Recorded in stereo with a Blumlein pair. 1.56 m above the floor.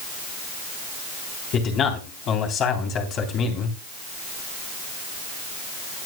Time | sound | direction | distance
1.5 | a man speaking | 30° left | 3.5 m